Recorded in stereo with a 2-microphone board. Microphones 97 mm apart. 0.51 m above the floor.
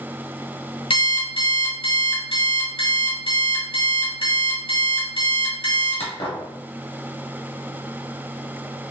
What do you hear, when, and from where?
0.9 s an alarm clock: 65° left (ahead or behind), 1.4 m